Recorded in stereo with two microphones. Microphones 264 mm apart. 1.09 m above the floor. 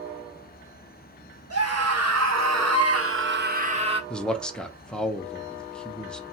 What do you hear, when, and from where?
1.5 s a scream: 65° right (ahead or behind), 1.0 m; by 4.0 s 20° right (ahead or behind), 0.8 m
4.1 s a man speaking: 5° left (ahead or behind), 0.5 m